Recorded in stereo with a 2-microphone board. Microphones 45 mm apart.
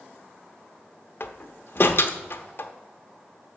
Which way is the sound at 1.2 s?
50° left (ahead or behind).